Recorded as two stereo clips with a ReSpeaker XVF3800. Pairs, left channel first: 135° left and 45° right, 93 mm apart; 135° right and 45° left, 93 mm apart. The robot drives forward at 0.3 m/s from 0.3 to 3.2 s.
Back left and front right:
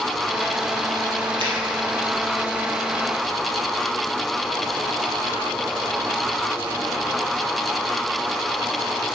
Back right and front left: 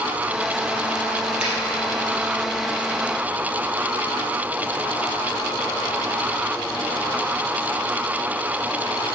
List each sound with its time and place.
1.4 s a finger snap: 30° right, 3 m